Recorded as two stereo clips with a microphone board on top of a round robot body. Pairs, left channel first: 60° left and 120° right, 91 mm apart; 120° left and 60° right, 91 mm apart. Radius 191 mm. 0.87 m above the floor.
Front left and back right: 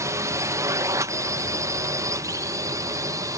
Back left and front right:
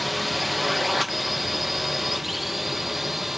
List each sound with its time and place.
0.0 s a drone: 150° right; by 3.4 s 145° right